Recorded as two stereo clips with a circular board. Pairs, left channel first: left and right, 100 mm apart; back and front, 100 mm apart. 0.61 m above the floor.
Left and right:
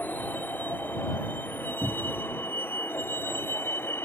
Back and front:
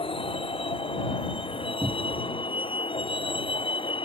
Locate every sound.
0.0 s a vehicle: 160° left; by 4.0 s 155° left
1.8 s a cupboard door: 25° right